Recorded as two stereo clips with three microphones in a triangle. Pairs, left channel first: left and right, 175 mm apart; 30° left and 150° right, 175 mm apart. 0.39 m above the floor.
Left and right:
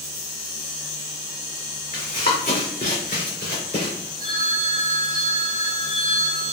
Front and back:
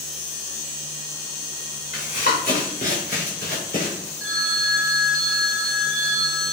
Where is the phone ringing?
60° left, 2 m.